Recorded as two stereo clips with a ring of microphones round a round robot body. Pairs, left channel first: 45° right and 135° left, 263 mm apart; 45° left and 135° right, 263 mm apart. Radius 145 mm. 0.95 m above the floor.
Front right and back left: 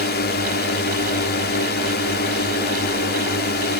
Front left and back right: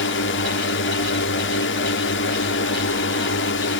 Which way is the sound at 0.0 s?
5° left.